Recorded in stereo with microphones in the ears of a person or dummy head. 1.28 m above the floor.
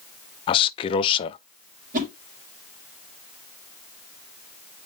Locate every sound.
0.5 s a man speaking: 30° left (ahead or behind), 0.6 m
1.9 s a whoosh: 45° right (ahead or behind), 3.5 m